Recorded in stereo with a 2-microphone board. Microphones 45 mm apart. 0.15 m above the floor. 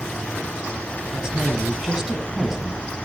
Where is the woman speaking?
10° right (ahead or behind), 1.1 m.